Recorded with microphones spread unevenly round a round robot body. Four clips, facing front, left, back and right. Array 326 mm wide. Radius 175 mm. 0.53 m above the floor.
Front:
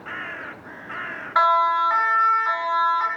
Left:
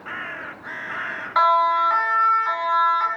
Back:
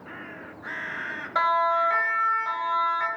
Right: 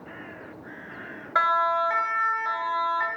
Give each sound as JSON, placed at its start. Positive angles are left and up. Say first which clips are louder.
{"t": 1.4, "sound": "a siren", "louder": "left 5 dB, front 4 dB", "azimuth_deg": -145, "distance_m": 3.5}